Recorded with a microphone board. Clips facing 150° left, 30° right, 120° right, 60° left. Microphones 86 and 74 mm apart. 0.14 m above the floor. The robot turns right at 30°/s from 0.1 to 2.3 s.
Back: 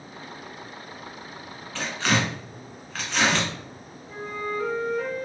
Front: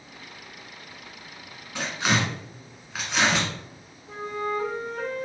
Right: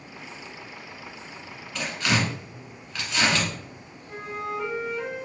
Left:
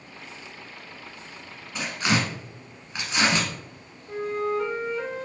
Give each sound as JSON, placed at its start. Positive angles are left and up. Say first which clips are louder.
{"t": 1.8, "sound": "tearing paper", "louder": "even, even", "azimuth_deg": 20, "distance_m": 1.4}
{"t": 4.1, "sound": "a flute", "louder": "front 2 dB, left 6 dB", "azimuth_deg": -30, "distance_m": 1.6}